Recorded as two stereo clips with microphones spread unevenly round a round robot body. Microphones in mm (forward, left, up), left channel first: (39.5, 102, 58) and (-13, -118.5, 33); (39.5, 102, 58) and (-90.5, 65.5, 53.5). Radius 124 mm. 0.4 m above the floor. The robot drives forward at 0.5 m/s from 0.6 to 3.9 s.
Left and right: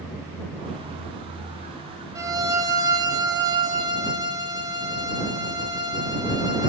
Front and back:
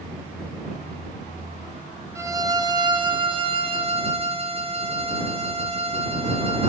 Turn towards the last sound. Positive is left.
turn(degrees=-165)